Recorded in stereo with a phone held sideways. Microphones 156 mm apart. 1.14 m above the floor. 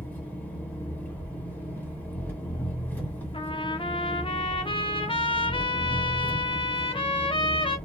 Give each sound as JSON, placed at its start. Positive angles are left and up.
{"t": 0.0, "sound": "an engine running", "side_deg": 10, "distance_m": 1.4}
{"t": 3.3, "sound": "a trumpet", "side_deg": 35, "distance_m": 0.6}